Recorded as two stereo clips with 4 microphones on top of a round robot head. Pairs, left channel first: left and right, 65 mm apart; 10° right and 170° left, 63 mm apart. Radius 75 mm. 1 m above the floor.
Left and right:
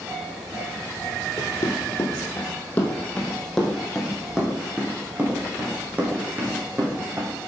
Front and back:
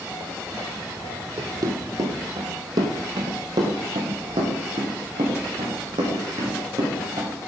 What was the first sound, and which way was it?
Running footsteps, 130° left.